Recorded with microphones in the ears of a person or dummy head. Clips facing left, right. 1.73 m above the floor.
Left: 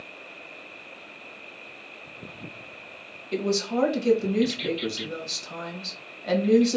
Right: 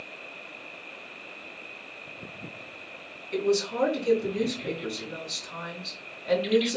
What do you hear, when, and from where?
3.3 s a woman speaking: 75° left (ahead or behind), 1.9 m